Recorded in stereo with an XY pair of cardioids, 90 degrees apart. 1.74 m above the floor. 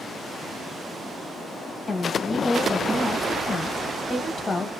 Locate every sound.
1.9 s a woman speaking: 35° left, 0.7 m